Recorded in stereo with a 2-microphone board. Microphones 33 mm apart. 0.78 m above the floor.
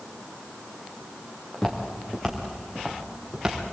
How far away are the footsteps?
About 4 m.